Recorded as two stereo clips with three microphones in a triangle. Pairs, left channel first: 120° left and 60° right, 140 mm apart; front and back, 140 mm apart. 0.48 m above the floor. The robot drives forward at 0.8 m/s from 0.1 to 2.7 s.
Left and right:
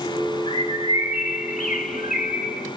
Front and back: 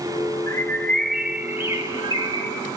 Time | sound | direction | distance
0.5 | a bird | 65° left | 1.3 m